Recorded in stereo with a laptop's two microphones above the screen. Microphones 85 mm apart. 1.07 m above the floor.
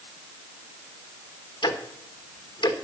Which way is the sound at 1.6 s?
60° left (ahead or behind).